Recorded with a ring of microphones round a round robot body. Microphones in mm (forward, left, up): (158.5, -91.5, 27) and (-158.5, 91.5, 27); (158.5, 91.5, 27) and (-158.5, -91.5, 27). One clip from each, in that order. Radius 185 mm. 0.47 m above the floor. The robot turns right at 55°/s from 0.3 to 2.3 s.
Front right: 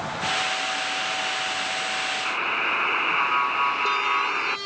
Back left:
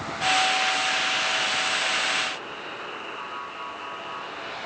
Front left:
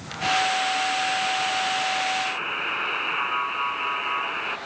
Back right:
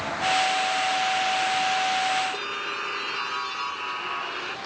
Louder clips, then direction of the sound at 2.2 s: Front right 9 dB, front left 2 dB; 45° right.